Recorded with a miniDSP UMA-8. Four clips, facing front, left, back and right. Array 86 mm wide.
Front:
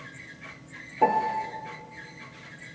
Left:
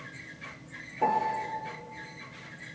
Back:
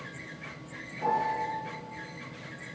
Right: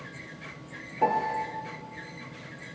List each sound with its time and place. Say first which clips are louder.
1.0 s a piano: right 1 dB, front 5 dB; 15° right, 1.5 m